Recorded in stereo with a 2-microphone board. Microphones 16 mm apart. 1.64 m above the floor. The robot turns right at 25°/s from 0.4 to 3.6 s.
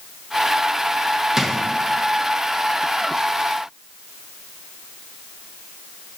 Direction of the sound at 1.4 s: 35° right (ahead or behind).